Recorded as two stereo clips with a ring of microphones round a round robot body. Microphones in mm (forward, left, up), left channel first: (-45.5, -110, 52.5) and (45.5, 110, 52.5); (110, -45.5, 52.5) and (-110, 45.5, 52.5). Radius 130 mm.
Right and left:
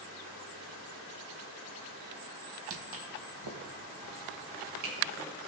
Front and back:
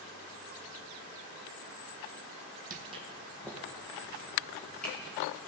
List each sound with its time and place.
2.7 s footsteps: 100° left, 0.8 m; by 5.1 s 65° left, 4.5 m